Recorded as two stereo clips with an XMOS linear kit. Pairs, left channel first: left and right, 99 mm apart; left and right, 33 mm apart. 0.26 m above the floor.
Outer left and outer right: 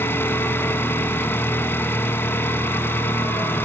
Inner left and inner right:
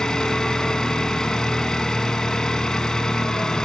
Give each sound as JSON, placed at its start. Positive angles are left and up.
{"t": 0.0, "sound": "an engine running", "side_deg": 25, "distance_m": 1.1}